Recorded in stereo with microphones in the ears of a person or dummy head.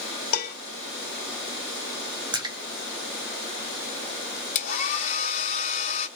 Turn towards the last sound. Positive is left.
turn(degrees=45)  # may be behind; listen again after turning